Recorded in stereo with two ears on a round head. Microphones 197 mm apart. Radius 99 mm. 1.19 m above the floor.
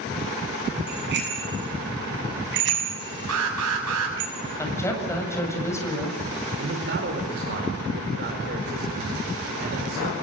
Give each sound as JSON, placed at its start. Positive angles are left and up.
{"t": 0.9, "sound": "a bicycle bell", "side_deg": -50, "distance_m": 8.5}
{"t": 3.3, "sound": "an alarm", "side_deg": -75, "distance_m": 6.0}
{"t": 4.6, "sound": "a woman speaking", "side_deg": 15, "distance_m": 7.5}
{"t": 6.6, "sound": "a man speaking", "side_deg": -50, "distance_m": 4.5}